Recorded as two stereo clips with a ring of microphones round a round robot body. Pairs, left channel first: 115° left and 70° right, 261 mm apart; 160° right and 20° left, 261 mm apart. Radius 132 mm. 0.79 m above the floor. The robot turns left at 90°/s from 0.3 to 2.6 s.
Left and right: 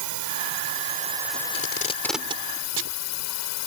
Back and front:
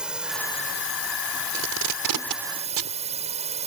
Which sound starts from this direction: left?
Tape being pulled, at 1.5 s.